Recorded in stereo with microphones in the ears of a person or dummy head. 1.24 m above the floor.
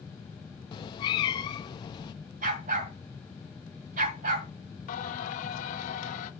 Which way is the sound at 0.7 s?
25° left (ahead or behind).